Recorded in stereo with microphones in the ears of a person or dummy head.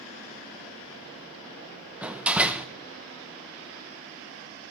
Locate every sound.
2.0 s a door slam: centre (ahead or behind), 0.8 m